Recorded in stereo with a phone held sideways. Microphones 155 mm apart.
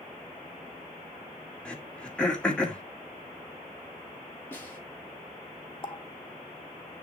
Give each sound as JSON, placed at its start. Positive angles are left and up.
{"t": 1.6, "sound": "throat clearing", "side_deg": 5, "distance_m": 2.0}
{"t": 4.5, "sound": "a snare drum", "side_deg": 15, "distance_m": 4.5}
{"t": 5.8, "sound": "a running tap", "side_deg": 35, "distance_m": 1.3}